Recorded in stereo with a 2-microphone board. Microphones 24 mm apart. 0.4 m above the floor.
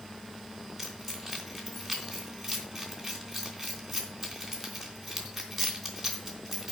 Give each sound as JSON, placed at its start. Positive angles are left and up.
{"t": 0.8, "sound": "keys jangling", "side_deg": 0, "distance_m": 3.0}